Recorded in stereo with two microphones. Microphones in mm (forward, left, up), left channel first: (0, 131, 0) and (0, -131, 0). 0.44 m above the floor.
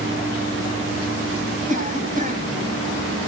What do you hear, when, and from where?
1.7 s a cough: 30° right (ahead or behind), 3 m